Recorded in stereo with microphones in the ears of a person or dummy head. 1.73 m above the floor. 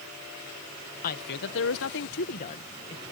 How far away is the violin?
No violin in this recording.